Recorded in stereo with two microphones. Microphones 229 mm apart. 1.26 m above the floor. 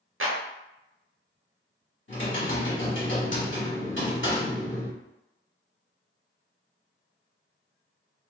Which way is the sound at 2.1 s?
55° left (ahead or behind).